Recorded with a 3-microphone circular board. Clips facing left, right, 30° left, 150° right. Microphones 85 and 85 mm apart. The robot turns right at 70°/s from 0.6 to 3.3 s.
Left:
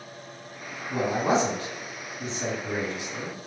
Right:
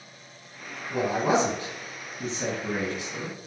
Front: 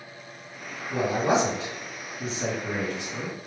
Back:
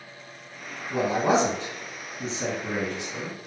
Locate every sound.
0.9 s a man speaking: 155° left, 2.0 m; by 3.4 s 35° right, 2.0 m